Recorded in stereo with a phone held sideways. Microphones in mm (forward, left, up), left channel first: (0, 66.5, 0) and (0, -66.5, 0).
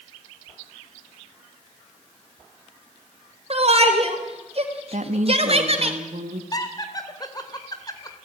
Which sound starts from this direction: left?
Laughter, at 6.5 s.